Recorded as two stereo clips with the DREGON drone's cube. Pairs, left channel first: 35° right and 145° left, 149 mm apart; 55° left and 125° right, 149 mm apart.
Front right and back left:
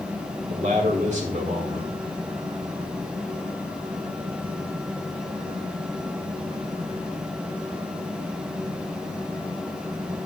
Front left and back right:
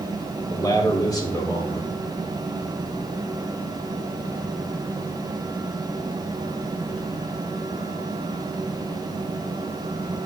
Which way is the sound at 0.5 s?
120° left.